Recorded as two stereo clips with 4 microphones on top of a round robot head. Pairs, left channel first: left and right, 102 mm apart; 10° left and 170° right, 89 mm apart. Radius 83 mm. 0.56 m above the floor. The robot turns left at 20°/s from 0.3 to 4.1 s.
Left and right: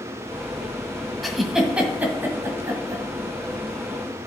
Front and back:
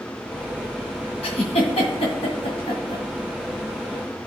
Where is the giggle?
Straight ahead, 1.5 m; by 3.0 s 35° right, 1.5 m.